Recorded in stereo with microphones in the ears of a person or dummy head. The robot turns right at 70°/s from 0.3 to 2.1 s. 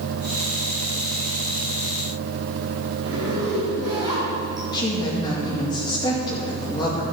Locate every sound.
3.0 s a zipper: 20° right (ahead or behind), 5.5 m
4.7 s a woman speaking: 20° left (ahead or behind), 2.5 m